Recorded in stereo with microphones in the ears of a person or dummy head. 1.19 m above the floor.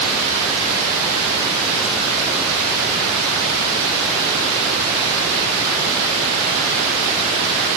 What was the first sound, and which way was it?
Only background noise.